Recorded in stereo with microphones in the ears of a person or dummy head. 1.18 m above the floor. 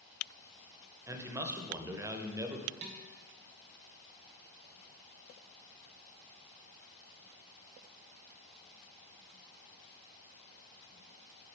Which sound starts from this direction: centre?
A man speaking, at 1.1 s.